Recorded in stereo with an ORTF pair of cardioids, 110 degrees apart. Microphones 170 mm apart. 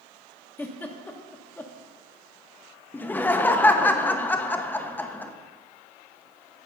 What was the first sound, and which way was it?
A giggle, 10° left.